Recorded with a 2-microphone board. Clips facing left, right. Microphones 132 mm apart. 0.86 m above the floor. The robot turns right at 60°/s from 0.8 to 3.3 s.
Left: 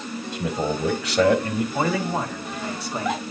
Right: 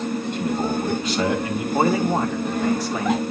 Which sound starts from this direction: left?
A man speaking, at 0.3 s.